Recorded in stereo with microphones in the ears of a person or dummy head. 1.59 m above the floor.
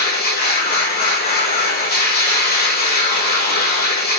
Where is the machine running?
45° left (ahead or behind), 5 m.